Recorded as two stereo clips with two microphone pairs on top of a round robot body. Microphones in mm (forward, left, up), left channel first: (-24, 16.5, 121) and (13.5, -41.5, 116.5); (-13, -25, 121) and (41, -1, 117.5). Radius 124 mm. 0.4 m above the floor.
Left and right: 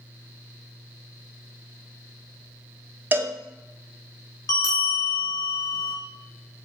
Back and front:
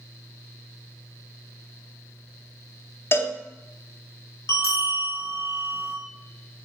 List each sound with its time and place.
3.1 s a cowbell: 110° right, 0.8 m
4.5 s a bell: 165° left, 1.3 m